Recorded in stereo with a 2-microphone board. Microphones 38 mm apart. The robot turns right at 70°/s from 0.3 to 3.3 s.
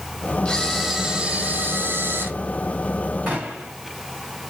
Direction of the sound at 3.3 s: 45° right (ahead or behind).